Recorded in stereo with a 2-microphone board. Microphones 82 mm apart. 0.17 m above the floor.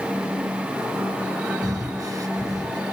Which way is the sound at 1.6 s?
45° right (ahead or behind).